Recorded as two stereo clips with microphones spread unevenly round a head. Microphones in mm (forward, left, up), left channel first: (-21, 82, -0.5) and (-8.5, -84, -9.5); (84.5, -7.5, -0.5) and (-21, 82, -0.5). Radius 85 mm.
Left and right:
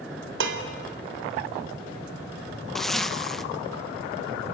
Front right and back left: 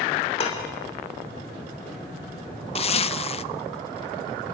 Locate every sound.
0.4 s dishes clattering: 100° right, 2.5 m
2.8 s a zipper: 5° left, 0.6 m